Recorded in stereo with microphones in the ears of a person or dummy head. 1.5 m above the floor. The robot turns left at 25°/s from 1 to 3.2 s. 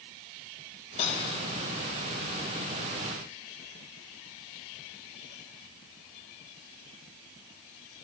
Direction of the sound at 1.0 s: 40° left (ahead or behind).